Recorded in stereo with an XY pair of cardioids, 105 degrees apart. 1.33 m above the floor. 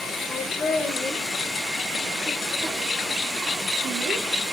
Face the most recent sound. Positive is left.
turn(degrees=-60)